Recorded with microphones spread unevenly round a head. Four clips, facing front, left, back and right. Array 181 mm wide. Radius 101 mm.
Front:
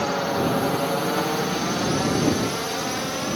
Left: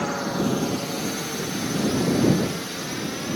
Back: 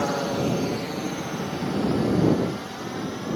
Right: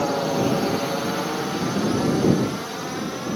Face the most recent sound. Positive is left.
turn(degrees=0)